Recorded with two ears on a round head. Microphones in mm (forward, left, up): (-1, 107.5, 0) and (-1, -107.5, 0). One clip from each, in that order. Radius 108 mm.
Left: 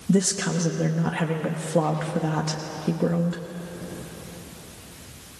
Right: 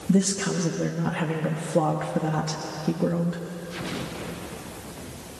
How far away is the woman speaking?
About 1.1 m.